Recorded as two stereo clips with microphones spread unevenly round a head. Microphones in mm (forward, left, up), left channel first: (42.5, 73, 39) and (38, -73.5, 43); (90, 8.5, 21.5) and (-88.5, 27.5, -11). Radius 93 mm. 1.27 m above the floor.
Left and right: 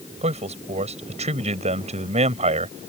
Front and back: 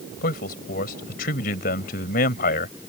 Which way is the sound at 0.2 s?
50° right.